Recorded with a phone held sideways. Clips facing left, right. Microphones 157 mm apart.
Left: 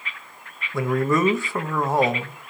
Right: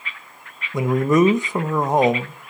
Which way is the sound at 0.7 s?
20° right (ahead or behind).